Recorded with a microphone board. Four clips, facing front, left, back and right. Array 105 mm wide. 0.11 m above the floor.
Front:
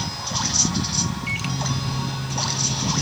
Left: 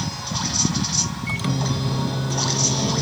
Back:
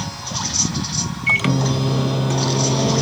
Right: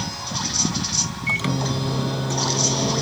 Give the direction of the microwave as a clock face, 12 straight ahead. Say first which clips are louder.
Right 2 dB, back 8 dB; 6 o'clock.